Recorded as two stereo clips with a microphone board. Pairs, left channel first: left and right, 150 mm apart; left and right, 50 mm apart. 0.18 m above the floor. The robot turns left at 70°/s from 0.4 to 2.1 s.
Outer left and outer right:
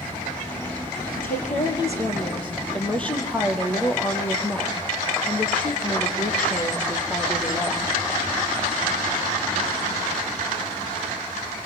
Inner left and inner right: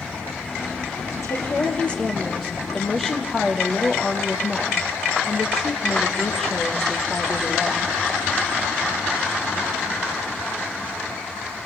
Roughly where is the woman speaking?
Left.